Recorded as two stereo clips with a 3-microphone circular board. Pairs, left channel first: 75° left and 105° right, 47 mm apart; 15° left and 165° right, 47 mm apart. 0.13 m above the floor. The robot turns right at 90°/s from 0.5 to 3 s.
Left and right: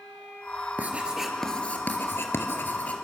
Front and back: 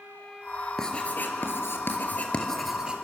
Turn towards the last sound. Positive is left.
turn(degrees=135)